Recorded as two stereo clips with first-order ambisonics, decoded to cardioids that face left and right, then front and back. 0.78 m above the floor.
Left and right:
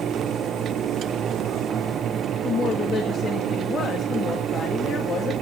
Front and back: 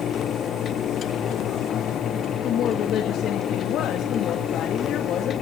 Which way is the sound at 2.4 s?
35° left.